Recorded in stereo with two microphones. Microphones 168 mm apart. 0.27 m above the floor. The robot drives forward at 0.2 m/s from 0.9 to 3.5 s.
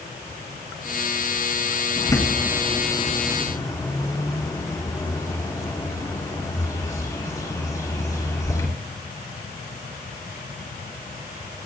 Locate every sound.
2.0 s a bird: 25° left (ahead or behind), 2 m; by 8.7 s 20° left (ahead or behind), 2.5 m